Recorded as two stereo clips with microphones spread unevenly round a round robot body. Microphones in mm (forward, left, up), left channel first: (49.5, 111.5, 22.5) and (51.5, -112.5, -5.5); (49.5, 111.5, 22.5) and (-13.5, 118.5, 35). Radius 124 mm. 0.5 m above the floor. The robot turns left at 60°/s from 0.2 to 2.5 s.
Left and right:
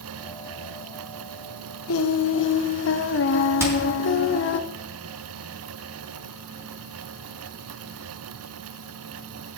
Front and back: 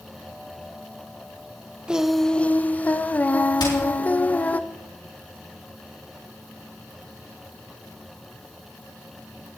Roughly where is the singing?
Left.